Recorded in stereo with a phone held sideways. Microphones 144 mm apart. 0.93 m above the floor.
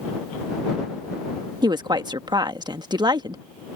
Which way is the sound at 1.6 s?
30° right (ahead or behind).